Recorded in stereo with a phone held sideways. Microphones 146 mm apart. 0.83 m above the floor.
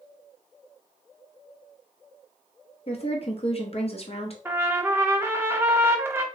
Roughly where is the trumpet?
Centre.